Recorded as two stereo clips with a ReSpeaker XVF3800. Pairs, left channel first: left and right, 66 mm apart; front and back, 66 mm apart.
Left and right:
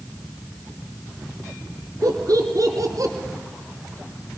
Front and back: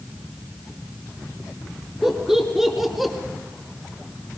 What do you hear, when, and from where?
2.0 s laughter: 100° right, 2.5 m; by 3.1 s 95° right, 2 m